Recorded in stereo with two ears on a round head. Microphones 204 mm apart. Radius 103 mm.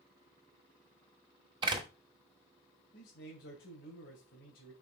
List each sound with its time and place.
1.6 s a door slam: 20° right (ahead or behind), 2.0 m
2.9 s a man speaking: 45° left (ahead or behind), 2.5 m